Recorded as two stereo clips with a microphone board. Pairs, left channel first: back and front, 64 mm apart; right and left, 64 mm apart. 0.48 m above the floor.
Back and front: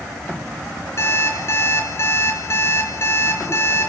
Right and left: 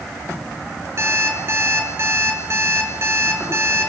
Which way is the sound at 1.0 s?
135° left.